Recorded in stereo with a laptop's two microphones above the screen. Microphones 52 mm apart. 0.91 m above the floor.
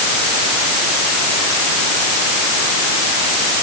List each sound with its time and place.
Only background noise.